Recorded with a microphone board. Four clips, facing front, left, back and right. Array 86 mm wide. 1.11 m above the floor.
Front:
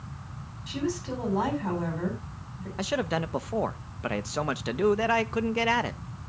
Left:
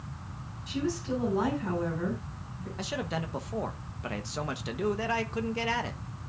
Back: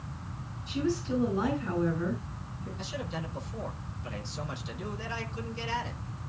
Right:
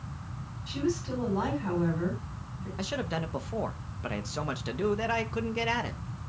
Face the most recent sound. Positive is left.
turn(degrees=-5)